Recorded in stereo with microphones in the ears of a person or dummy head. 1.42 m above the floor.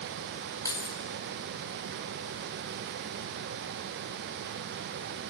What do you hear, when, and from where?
0.7 s keys jangling: 25° left (ahead or behind), 1.3 m